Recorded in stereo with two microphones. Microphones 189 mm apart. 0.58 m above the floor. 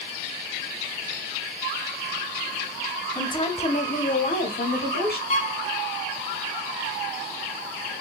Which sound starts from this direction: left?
A violin, at 5.3 s.